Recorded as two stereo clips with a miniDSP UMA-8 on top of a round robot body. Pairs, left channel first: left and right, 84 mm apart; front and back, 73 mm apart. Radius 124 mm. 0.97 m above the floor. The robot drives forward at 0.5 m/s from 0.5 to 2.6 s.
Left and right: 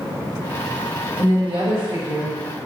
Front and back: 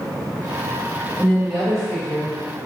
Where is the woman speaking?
75° right, 1.7 m; by 2.4 s 95° right, 1.7 m.